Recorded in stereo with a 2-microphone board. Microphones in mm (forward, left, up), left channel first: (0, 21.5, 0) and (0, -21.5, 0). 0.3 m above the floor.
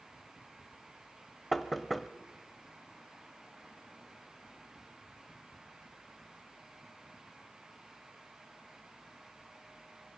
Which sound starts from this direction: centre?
Knocking, at 1.5 s.